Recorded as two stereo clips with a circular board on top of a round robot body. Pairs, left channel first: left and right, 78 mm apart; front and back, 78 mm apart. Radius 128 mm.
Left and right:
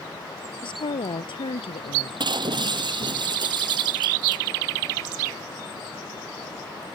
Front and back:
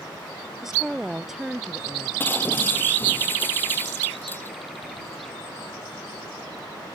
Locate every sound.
0.6 s a woman speaking: 95° left
2.2 s breaking glass: 65° right